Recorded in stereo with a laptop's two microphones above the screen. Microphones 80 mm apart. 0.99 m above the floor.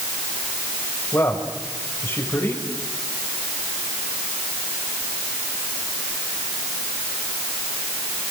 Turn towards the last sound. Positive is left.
turn(degrees=35)  # may be behind; listen again after turning